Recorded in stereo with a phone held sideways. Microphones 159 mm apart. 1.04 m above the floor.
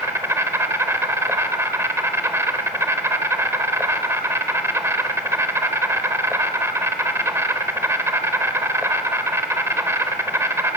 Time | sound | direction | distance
0.0 | an insect | 20° right (ahead or behind) | 1.0 m